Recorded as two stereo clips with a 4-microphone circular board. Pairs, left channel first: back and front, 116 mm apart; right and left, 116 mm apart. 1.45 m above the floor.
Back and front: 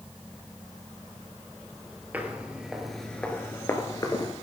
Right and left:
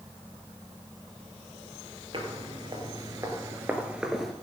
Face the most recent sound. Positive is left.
turn(degrees=180)